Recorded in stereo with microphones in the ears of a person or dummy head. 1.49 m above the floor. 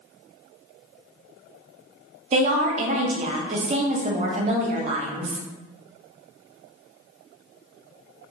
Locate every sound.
2.3 s a woman speaking: 40° right (ahead or behind), 0.8 m